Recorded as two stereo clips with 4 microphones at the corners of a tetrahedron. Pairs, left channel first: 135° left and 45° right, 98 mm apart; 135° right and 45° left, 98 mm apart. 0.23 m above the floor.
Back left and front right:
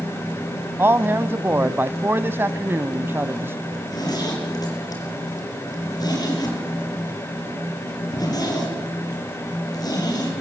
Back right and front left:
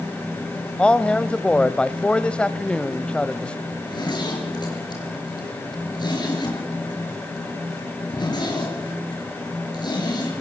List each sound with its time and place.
0.8 s a man speaking: 70° right, 1.0 m
3.7 s a zipper: straight behind, 6 m